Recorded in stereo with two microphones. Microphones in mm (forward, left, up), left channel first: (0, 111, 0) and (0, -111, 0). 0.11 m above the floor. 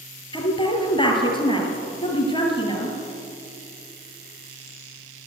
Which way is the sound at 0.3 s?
20° left (ahead or behind).